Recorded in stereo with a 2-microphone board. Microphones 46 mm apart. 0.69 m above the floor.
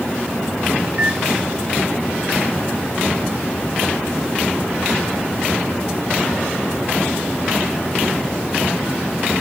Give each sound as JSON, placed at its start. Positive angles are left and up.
{"t": 0.9, "sound": "a microwave", "side_deg": -35, "distance_m": 3.0}